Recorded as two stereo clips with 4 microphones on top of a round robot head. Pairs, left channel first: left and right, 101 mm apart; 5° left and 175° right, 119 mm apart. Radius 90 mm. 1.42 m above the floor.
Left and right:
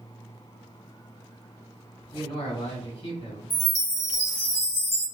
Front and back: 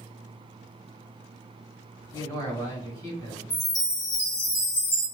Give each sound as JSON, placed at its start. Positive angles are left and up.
{"t": 2.1, "sound": "a man speaking", "azimuth_deg": 65, "distance_m": 1.7}
{"t": 3.5, "sound": "a chime", "azimuth_deg": 45, "distance_m": 1.1}